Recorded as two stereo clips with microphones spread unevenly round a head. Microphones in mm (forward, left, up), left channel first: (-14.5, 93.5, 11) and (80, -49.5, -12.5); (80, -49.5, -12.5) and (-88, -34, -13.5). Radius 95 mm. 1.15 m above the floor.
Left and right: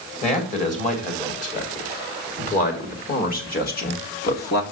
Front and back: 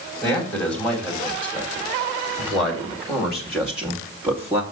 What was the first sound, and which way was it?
A man speaking, 75° left.